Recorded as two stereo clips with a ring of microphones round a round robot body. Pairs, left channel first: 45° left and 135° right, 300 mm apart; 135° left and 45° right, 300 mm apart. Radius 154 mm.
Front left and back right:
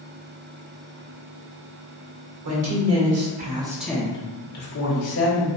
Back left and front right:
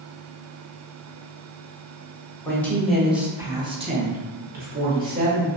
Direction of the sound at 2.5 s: 145° right.